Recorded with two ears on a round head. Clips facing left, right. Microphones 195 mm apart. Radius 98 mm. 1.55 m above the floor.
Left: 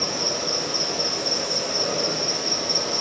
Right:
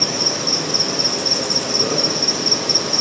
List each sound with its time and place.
0.0 s an insect: 65° right (ahead or behind), 1.5 m